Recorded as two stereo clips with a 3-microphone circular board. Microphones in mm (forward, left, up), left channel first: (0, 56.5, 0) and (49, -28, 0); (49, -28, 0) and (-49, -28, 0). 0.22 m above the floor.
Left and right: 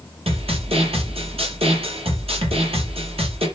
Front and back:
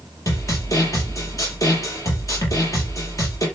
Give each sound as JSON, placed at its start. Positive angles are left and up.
{"t": 0.3, "sound": "a snare drum", "azimuth_deg": -55, "distance_m": 5.0}